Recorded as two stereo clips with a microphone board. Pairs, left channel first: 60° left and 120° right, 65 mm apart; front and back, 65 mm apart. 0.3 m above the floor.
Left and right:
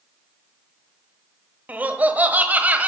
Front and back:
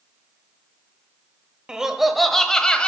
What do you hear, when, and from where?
1.7 s laughter: 115° right, 1.1 m; by 2.9 s 65° right, 1.4 m